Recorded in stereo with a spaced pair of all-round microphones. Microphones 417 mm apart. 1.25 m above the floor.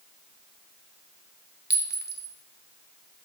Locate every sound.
1.7 s a clink: 25° right (ahead or behind), 0.7 m